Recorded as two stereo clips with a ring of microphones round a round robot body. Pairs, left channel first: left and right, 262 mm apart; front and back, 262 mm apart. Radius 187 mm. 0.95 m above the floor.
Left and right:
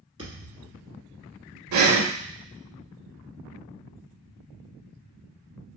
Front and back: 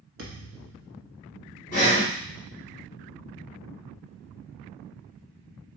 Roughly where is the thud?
Behind.